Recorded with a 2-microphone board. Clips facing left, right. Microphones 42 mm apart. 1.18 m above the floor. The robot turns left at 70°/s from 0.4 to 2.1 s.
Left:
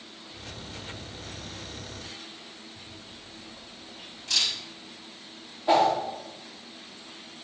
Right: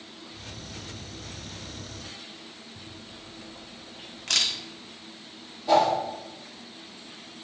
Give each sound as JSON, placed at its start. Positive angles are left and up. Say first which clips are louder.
{"t": 2.8, "sound": "a camera shutter", "louder": "right 1 dB", "side_deg": -70, "distance_m": 1.2}
{"t": 5.7, "sound": "a whoosh", "louder": "even", "side_deg": 25, "distance_m": 3.0}